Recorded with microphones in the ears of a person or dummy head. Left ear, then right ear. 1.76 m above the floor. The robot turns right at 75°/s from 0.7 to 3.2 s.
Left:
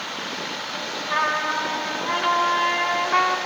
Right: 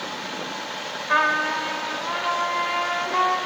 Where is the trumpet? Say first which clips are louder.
Right 2 dB; 75° right, 2.5 m; by 3.4 s 85° left, 2.5 m.